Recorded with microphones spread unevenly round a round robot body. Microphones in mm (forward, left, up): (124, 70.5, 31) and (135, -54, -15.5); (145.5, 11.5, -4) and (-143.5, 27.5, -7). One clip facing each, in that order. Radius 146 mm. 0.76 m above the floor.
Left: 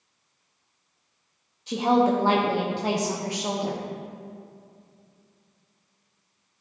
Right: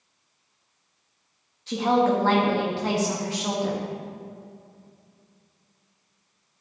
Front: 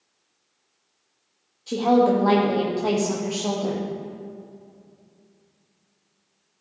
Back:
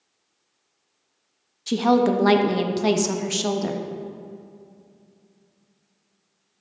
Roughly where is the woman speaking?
Behind.